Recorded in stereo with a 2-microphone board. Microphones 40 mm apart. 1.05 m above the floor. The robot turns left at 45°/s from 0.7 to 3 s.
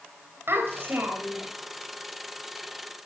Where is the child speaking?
110° right, 3 m; by 1.5 s 145° right, 3 m.